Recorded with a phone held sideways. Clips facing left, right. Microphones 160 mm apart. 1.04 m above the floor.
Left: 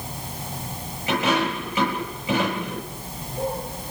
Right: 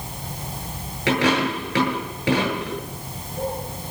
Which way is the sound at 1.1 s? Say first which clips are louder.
Right 3 dB; 85° right.